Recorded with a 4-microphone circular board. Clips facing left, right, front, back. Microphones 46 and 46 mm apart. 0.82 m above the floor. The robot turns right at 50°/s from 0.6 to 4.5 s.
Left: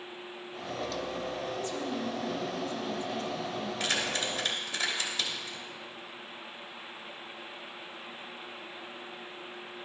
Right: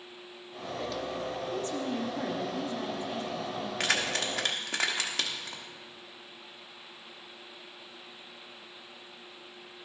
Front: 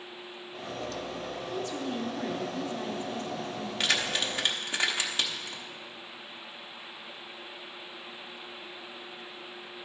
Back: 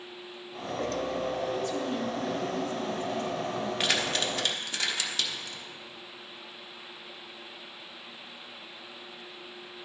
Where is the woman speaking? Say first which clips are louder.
Right 1 dB, back 3 dB; 90° right, 0.7 m; by 3.7 s 15° left, 0.7 m.